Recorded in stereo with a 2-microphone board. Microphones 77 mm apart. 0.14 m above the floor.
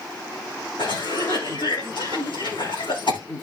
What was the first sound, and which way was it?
A cough, 80° left.